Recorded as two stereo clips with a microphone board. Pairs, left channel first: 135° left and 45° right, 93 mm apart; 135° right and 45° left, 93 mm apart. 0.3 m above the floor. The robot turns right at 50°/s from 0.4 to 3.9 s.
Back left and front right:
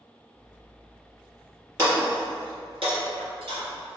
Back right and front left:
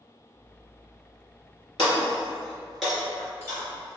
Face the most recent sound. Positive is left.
turn(degrees=5)